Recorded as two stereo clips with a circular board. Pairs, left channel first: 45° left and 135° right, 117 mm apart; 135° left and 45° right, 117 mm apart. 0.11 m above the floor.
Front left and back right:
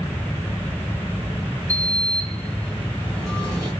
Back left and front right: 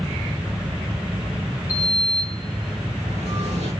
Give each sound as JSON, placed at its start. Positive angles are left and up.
{"t": 1.7, "sound": "a sliding door", "azimuth_deg": -35, "distance_m": 7.0}